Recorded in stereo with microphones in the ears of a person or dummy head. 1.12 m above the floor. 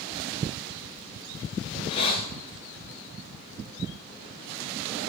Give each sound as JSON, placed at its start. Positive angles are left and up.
{"t": 1.7, "sound": "a hiss", "side_deg": 30, "distance_m": 4.0}